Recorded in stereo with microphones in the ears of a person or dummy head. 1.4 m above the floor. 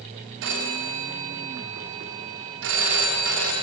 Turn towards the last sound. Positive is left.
turn(degrees=-70)  # may be behind; listen again after turning